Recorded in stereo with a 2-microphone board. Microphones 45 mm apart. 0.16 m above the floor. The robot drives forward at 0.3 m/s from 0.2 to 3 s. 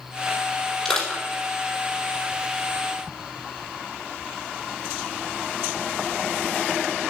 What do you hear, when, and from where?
0.8 s crushing: 5° left (ahead or behind), 5 m